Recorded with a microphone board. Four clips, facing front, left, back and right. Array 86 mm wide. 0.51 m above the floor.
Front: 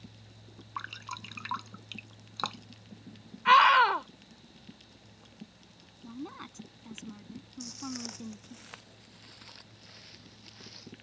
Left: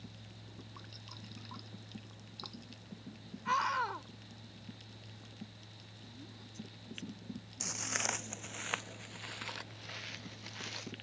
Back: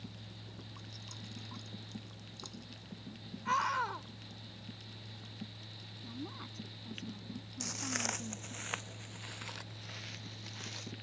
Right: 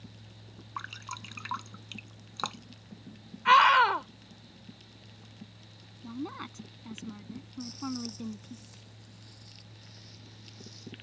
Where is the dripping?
45° right.